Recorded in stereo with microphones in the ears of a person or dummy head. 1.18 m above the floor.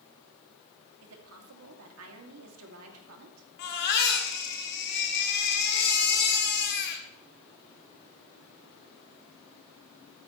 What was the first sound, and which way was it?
A woman speaking, 80° right.